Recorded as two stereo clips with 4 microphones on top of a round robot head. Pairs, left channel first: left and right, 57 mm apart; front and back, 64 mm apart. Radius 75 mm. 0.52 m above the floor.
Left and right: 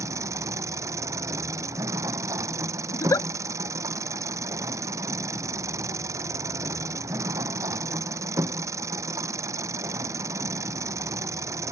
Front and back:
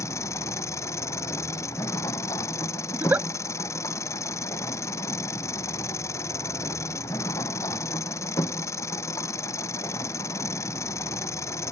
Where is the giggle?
115° left.